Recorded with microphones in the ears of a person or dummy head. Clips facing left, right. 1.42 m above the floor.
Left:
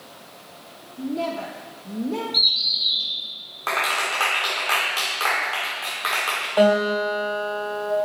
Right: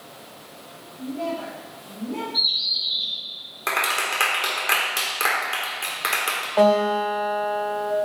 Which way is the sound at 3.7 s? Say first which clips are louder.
Left 1 dB; 25° right (ahead or behind).